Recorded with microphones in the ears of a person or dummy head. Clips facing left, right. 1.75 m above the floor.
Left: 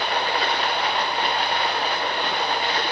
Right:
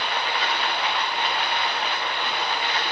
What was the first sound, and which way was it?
Running water, 30° left (ahead or behind).